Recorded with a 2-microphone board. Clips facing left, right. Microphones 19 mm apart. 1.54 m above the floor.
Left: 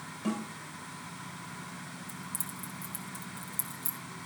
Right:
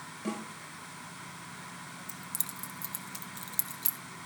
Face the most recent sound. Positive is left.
turn(degrees=-55)  # may be behind; listen again after turning